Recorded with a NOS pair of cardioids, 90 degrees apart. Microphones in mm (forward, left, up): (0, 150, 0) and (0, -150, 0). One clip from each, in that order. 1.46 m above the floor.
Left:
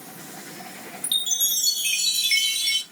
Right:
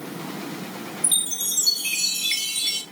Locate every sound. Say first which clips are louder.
1.0 s a chime: left 3 dB; 35° left, 3 m